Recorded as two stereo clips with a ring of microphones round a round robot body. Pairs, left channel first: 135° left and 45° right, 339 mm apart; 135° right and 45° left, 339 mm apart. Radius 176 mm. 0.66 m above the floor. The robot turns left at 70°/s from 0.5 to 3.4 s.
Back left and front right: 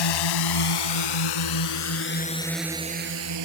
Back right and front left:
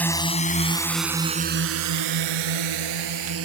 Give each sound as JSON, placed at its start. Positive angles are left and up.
{"t": 0.0, "sound": "a drone", "azimuth_deg": 140}